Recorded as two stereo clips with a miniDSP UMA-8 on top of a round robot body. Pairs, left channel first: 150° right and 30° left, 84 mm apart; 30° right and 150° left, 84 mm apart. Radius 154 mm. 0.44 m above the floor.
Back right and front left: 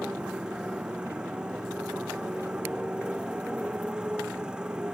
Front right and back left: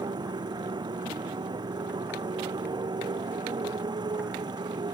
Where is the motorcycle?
110° left.